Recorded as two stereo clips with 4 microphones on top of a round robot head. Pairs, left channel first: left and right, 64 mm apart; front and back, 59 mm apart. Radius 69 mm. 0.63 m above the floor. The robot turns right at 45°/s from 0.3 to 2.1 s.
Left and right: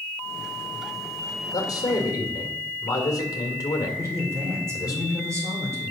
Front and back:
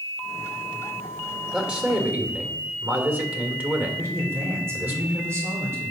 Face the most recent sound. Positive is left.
turn(degrees=-135)